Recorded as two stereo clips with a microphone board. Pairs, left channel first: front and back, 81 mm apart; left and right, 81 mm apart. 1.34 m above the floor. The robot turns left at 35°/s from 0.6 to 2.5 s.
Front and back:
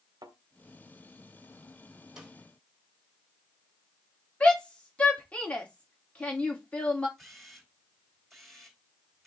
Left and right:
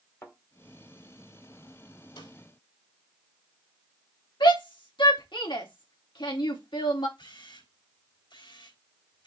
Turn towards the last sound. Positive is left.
turn(degrees=90)